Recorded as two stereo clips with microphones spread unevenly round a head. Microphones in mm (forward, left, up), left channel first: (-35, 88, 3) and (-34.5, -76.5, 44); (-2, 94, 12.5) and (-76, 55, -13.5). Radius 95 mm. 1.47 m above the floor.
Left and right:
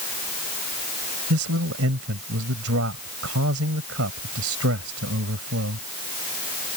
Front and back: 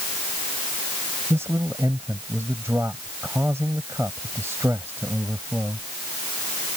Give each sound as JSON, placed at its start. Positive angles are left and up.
{"t": 1.3, "sound": "a man speaking", "azimuth_deg": -70}